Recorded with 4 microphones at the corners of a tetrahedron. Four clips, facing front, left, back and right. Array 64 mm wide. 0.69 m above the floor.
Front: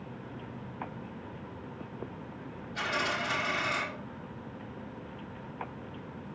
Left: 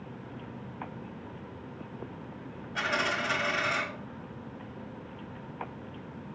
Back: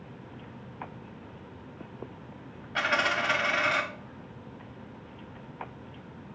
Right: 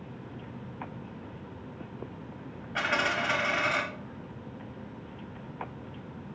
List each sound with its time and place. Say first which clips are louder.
2.8 s a dropped coin: right 2 dB, back 5 dB; 150° right, 1.8 m